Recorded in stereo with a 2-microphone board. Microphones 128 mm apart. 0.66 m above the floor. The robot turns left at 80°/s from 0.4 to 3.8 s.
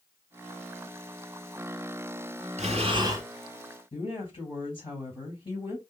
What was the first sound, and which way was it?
Breathing, 110° right.